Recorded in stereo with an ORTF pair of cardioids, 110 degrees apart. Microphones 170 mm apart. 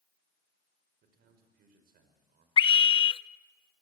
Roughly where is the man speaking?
Right.